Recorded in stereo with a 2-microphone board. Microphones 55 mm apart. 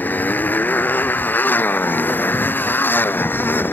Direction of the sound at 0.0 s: 30° left (ahead or behind).